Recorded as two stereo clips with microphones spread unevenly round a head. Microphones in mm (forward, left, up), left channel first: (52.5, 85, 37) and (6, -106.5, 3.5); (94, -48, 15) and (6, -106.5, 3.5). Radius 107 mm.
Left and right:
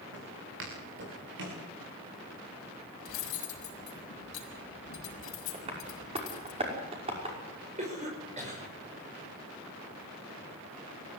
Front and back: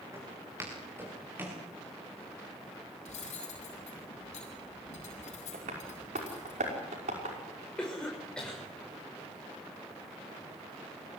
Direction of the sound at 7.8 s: 45° right.